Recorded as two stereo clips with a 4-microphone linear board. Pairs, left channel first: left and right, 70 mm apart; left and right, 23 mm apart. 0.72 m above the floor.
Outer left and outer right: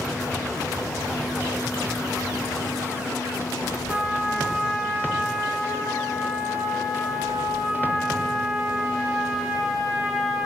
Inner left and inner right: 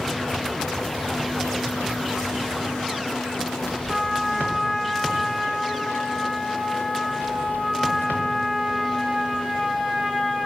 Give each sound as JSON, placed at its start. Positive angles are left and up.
{"t": 3.9, "sound": "a trumpet", "side_deg": -15, "distance_m": 0.6}